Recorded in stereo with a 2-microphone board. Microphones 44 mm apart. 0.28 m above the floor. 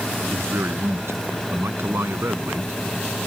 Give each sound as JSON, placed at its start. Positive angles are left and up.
{"t": 0.3, "sound": "a man speaking", "side_deg": -65}